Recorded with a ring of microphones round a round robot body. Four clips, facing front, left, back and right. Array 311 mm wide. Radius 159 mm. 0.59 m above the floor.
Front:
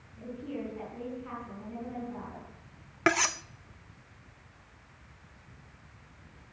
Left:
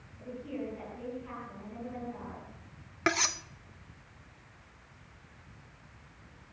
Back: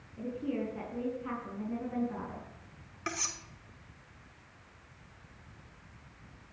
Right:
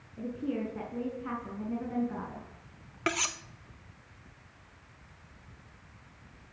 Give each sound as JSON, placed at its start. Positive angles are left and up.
{"t": 0.2, "sound": "a woman speaking", "azimuth_deg": -120, "distance_m": 7.5}
{"t": 3.1, "sound": "cutlery clinking", "azimuth_deg": 10, "distance_m": 0.8}